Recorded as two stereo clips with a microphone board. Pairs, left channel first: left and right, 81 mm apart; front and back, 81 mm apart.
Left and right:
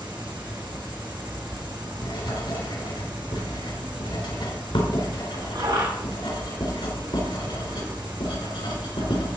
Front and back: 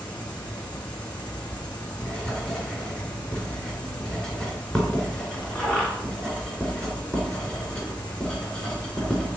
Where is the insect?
75° right, 5.5 m.